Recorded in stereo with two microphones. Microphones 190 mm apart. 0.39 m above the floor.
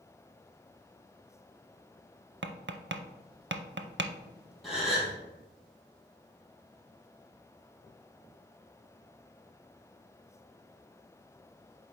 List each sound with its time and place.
2.4 s tapping: 75° right (ahead or behind), 0.5 m
4.6 s a gasp: centre (ahead or behind), 2.5 m